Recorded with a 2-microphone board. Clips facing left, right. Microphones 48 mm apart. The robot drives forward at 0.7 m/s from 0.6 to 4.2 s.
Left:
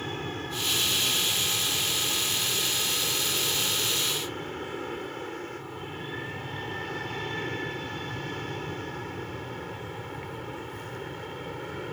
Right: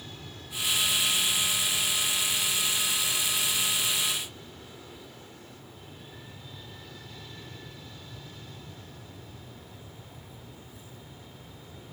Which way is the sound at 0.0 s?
50° left (ahead or behind).